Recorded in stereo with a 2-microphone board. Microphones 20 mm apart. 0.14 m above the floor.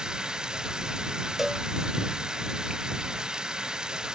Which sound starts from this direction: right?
Running water, at 0.0 s.